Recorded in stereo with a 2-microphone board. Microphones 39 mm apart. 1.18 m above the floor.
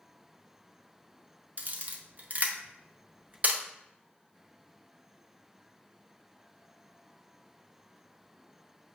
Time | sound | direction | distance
1.6 | a camera shutter | 45° right (ahead or behind) | 0.6 m